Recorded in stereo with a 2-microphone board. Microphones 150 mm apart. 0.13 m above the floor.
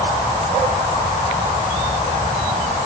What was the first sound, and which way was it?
Only background noise.